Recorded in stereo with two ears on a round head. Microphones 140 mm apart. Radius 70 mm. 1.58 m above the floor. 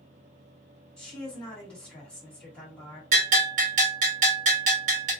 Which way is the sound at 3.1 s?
45° right (ahead or behind).